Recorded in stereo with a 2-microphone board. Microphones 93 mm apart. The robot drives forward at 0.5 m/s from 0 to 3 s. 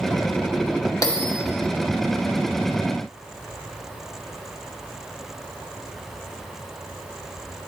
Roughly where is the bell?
Left.